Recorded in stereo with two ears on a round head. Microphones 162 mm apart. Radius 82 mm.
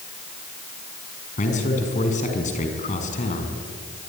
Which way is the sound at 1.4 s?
45° left (ahead or behind).